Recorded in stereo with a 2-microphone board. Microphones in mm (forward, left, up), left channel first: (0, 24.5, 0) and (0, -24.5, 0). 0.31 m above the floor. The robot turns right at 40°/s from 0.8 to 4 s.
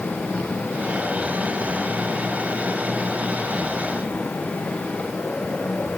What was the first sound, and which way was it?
Only background noise.